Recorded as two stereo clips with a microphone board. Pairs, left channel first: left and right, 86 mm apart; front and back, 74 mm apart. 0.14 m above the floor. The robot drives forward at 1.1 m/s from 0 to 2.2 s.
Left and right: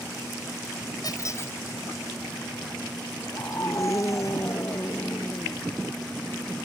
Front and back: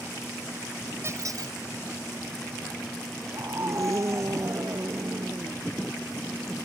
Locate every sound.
1.0 s a squeak: 130° left; by 1.6 s 150° left
3.3 s a scream: 140° left